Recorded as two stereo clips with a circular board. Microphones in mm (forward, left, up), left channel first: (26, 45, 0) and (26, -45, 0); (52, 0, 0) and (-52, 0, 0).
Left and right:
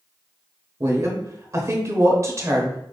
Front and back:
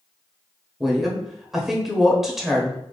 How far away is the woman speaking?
About 1.0 m.